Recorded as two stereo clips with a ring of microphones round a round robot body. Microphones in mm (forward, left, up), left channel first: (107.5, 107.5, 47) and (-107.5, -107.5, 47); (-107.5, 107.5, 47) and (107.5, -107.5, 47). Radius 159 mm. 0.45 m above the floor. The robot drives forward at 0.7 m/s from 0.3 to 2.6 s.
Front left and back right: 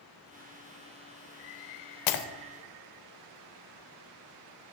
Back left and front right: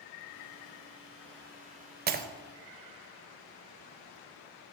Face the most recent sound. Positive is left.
turn(degrees=30)